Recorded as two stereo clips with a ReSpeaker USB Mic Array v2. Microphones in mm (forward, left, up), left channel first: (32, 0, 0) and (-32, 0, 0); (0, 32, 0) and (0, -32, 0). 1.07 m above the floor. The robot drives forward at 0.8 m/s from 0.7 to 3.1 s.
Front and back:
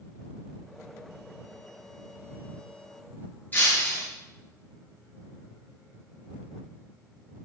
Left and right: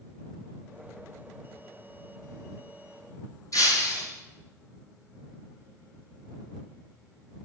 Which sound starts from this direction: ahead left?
Breaking glass, at 3.5 s.